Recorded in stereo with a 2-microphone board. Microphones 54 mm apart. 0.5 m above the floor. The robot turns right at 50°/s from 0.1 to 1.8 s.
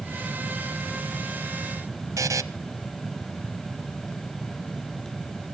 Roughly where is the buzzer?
Right.